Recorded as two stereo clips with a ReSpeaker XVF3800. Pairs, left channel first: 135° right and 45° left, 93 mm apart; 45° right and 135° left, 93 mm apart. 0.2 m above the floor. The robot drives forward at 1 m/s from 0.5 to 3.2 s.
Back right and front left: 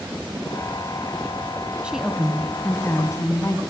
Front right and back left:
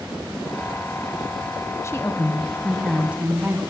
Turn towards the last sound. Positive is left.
turn(degrees=-160)